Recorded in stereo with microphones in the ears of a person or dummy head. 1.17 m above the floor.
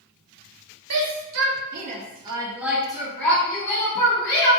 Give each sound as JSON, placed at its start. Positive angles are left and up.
{"t": 0.9, "sound": "a shout", "side_deg": -80, "distance_m": 0.8}